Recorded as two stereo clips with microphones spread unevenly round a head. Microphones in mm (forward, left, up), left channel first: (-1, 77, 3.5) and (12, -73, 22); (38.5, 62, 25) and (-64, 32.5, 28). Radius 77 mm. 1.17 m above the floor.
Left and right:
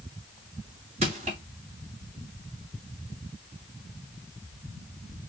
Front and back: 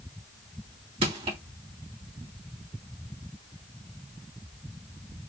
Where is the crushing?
135° right, 2.5 m.